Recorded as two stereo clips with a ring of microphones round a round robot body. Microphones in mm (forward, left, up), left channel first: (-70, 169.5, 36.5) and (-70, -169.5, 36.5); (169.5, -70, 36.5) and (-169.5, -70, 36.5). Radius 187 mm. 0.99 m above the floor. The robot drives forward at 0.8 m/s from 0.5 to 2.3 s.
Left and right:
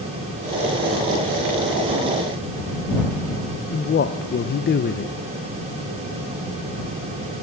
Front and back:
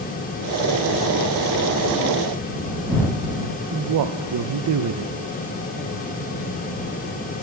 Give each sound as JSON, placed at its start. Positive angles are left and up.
{"t": 3.7, "sound": "a man speaking", "azimuth_deg": 150, "distance_m": 0.5}